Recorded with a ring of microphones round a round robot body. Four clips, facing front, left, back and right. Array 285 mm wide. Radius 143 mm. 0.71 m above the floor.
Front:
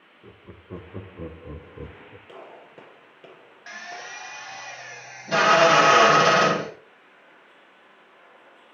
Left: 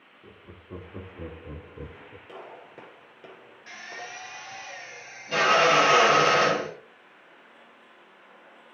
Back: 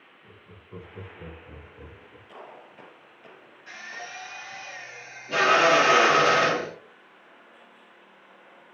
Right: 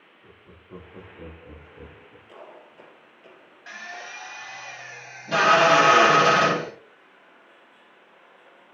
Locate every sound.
0.2 s laughter: 15° left, 1.7 m; by 2.2 s 40° left, 1.0 m
2.3 s a gunshot: 50° left, 6.5 m
3.7 s a drill: 40° right, 3.5 m